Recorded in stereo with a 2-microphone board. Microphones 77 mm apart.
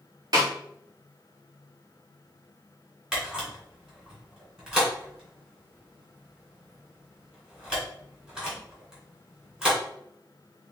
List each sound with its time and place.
0.3 s a snare drum: 50° right (ahead or behind), 1.7 m
3.1 s a camera shutter: 15° right (ahead or behind), 2.5 m